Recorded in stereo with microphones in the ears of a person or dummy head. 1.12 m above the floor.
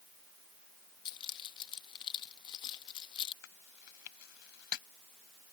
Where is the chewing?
65° left (ahead or behind).